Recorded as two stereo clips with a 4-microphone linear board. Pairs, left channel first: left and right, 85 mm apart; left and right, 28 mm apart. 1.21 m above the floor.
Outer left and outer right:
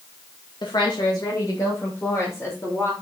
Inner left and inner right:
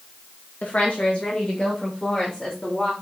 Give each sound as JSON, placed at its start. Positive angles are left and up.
{"t": 0.6, "sound": "a woman speaking", "side_deg": 60, "distance_m": 1.7}